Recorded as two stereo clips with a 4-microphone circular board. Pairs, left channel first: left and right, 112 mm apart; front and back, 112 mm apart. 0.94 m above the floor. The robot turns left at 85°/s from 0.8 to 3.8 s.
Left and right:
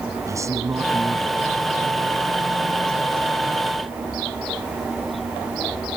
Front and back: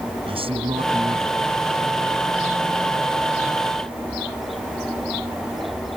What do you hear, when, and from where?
0.3 s a man speaking: 150° right; by 1.6 s 135° left